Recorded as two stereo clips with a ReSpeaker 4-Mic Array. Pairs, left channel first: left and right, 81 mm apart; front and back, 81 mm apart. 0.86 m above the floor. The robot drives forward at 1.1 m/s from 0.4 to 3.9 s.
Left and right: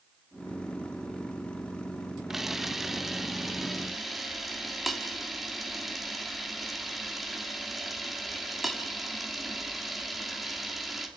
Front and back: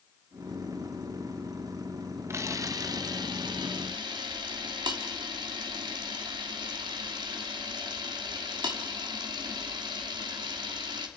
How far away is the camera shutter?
About 1.1 m.